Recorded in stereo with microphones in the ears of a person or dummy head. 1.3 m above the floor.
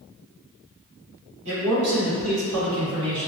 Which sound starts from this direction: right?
A man speaking, at 1.4 s.